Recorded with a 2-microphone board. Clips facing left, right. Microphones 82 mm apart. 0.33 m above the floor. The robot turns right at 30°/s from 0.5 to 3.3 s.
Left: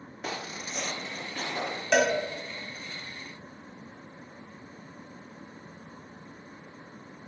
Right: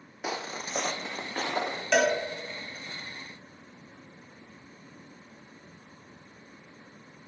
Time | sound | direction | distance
0.2 | footsteps | 10° right (ahead or behind) | 0.6 m
1.9 | a cowbell | 5° left (ahead or behind) | 1.3 m